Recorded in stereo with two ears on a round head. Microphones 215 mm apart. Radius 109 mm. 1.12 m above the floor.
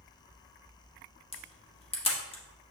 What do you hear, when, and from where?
1.3 s a camera shutter: 25° left (ahead or behind), 1.4 m